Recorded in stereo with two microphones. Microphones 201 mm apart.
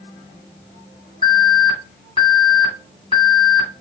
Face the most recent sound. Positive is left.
turn(degrees=25)  # may be behind; listen again after turning